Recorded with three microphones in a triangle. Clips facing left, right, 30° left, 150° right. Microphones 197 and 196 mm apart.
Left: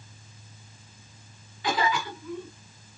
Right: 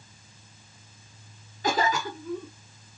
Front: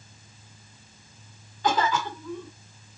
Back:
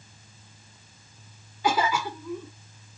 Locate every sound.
1.6 s a cough: 75° right, 1.4 m